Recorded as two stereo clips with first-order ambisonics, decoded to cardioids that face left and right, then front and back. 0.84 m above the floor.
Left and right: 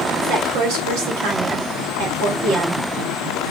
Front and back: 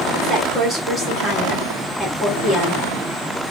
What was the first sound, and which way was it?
A woman speaking, 95° right.